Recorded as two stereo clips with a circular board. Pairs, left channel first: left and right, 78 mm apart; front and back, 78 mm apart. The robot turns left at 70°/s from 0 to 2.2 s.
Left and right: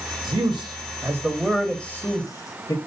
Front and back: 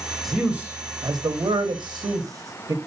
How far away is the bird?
No bird in this recording.